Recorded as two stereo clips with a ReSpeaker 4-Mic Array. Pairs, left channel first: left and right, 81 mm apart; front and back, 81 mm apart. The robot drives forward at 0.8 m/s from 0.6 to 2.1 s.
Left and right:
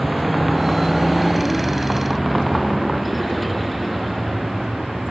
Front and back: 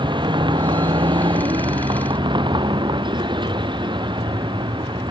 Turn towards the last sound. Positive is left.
turn(degrees=180)